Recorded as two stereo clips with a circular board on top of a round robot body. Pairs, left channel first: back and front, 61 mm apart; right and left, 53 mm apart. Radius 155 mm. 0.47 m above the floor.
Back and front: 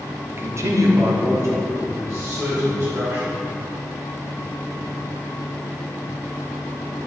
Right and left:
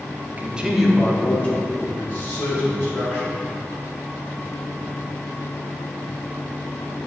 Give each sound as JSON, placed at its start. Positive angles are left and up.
{"t": 0.3, "sound": "a man speaking", "azimuth_deg": 45, "distance_m": 1.3}